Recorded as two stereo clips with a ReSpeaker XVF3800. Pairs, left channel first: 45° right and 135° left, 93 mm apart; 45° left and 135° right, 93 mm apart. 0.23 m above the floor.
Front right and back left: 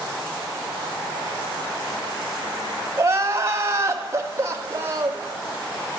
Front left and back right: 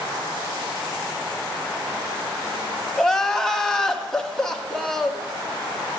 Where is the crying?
120° left, 1.2 m.